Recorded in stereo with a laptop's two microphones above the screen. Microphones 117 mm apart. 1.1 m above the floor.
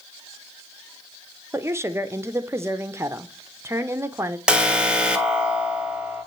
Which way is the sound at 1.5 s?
20° right (ahead or behind).